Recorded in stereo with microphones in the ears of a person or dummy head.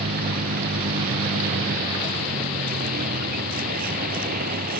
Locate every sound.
0.0 s a vehicle: 45° right (ahead or behind)